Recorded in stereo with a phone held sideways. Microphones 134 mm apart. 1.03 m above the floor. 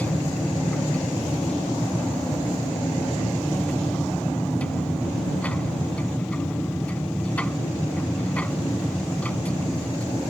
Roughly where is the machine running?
Centre.